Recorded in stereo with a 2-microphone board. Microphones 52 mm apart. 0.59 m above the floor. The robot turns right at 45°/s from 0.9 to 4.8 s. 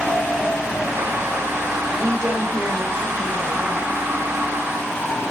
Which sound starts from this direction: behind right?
A woman speaking, at 1.9 s.